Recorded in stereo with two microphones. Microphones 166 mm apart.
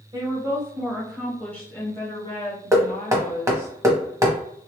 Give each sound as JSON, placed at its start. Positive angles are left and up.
{"t": 0.1, "sound": "a woman speaking", "side_deg": -25, "distance_m": 1.3}
{"t": 2.7, "sound": "knocking", "side_deg": -20, "distance_m": 0.9}